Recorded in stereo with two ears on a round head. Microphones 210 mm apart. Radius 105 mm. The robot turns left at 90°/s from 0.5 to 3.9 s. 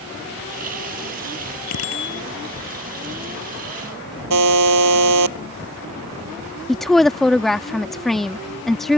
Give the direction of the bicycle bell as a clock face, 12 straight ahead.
9 o'clock.